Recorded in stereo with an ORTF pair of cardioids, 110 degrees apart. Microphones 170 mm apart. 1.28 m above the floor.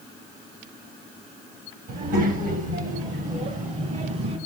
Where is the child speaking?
60° right, 5 m; by 4.4 s 40° right, 3.5 m.